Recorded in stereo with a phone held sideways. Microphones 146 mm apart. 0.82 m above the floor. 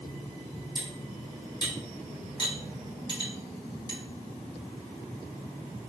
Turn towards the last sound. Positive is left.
turn(degrees=30)  # may be behind; listen again after turning